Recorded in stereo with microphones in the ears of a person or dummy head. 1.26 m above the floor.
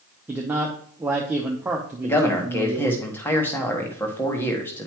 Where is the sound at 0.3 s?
15° right (ahead or behind), 0.7 m.